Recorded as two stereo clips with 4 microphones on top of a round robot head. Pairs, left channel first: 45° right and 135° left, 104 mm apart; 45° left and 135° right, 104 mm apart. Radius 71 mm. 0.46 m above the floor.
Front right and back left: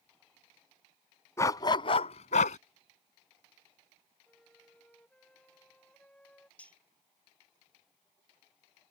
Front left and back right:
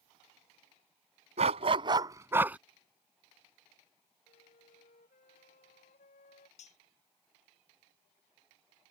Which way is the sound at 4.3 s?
35° left.